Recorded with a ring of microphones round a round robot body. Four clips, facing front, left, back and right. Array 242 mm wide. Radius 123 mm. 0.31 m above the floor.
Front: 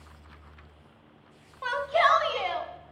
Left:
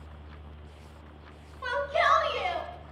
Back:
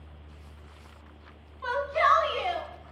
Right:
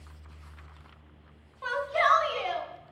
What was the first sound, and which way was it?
A shout, straight ahead.